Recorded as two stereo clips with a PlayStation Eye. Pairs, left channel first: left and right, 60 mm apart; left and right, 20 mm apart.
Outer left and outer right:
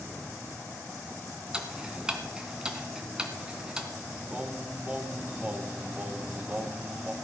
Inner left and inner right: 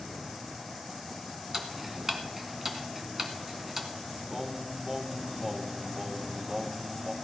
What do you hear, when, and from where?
1.5 s ticking: 10° right (ahead or behind), 1.9 m
4.3 s singing: 20° right (ahead or behind), 0.9 m